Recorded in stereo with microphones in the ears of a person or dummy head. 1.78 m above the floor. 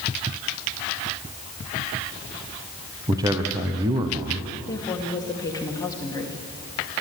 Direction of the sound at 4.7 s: 20° left (ahead or behind).